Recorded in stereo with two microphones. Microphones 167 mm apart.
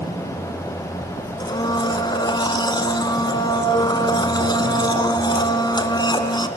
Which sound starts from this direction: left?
A blender, at 1.4 s.